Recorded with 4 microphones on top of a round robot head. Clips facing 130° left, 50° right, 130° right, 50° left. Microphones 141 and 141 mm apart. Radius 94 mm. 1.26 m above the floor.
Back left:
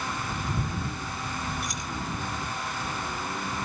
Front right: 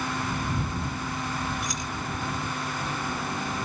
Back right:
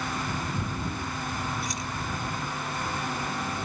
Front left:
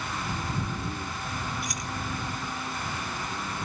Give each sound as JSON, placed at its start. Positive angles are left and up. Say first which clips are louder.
{"t": 1.6, "sound": "keys jangling", "louder": "front right 2 dB, back right 2 dB", "azimuth_deg": -65}